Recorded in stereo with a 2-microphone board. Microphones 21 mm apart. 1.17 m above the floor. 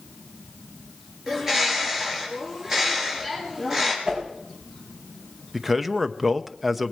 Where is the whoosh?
50° right (ahead or behind), 5 m.